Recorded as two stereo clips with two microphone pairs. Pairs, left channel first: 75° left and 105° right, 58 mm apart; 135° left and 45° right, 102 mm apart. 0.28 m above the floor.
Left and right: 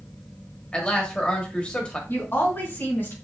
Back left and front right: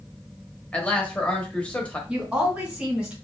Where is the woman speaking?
35° left, 2.5 m.